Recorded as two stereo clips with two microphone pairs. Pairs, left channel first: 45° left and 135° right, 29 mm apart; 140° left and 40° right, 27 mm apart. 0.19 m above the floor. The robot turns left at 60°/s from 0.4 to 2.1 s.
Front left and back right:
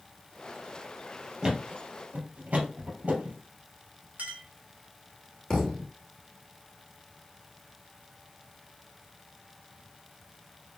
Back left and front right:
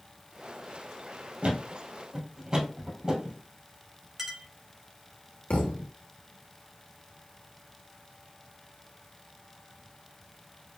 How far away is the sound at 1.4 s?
About 2 m.